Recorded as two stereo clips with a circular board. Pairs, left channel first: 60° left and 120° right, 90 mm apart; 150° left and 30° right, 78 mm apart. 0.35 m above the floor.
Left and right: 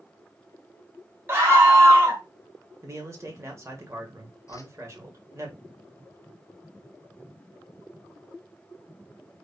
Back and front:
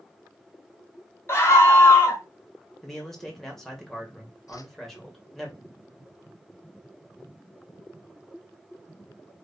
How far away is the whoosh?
About 0.7 m.